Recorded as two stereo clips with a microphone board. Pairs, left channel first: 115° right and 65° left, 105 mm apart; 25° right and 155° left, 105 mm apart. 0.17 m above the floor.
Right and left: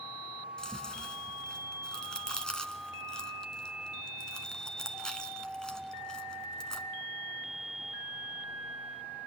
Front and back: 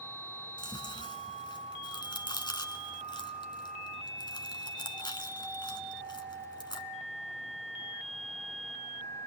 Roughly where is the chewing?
Ahead right.